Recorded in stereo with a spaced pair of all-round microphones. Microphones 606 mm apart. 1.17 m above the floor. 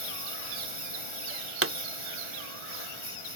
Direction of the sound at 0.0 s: 50° left (ahead or behind).